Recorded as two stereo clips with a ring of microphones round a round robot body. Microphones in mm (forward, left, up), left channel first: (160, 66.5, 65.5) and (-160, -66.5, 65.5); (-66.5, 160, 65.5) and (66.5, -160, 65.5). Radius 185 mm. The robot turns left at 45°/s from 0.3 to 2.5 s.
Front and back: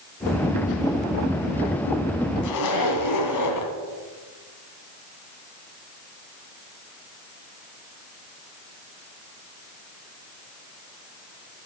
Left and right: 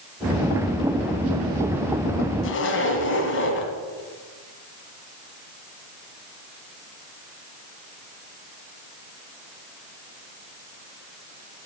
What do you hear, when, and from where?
2.4 s a zipper: 60° left, 2 m; by 3.7 s 55° left, 2 m